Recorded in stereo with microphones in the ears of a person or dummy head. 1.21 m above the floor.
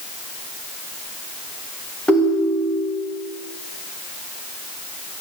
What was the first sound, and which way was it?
A ringtone, centre (ahead or behind).